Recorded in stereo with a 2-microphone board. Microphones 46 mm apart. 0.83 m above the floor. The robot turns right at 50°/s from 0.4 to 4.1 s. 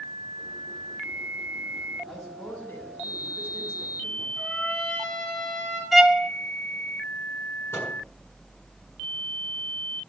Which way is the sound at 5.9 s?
5° right (ahead or behind).